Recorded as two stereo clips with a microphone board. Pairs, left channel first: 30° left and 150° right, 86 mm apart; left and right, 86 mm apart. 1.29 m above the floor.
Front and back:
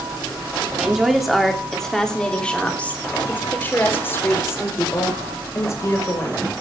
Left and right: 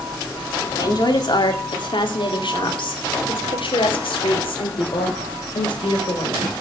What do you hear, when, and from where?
0.8 s a woman speaking: 125° left, 2.5 m; by 6.5 s 80° left, 4.5 m